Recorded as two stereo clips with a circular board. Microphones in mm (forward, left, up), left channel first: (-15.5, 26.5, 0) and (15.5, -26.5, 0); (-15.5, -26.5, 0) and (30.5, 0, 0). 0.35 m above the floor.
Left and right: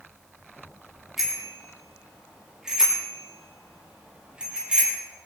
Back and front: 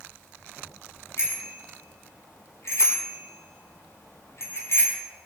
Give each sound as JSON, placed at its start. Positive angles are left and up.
{"t": 1.2, "sound": "a bicycle bell", "azimuth_deg": -145, "distance_m": 8.0}